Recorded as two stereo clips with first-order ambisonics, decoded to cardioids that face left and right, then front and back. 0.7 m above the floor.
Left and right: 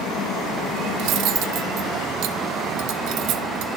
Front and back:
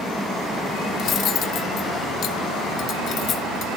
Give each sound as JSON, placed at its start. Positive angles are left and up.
{"t": 1.0, "sound": "cutlery clinking", "azimuth_deg": -55, "distance_m": 0.6}